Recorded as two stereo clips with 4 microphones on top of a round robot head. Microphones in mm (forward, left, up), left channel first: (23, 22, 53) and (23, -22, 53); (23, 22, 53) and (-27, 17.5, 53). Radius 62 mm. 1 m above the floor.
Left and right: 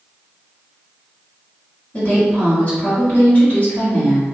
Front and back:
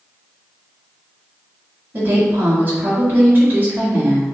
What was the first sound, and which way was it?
A woman speaking, 145° left.